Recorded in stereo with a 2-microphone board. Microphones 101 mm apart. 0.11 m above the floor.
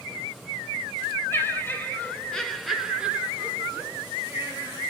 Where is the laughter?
20° left (ahead or behind), 2.5 m; by 4.8 s 25° right (ahead or behind), 3.5 m.